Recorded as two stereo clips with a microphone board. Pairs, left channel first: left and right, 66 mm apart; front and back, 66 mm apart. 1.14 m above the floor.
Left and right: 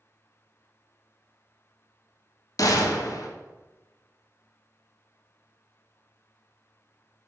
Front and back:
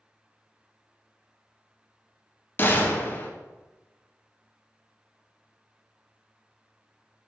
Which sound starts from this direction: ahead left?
A gunshot, at 2.6 s.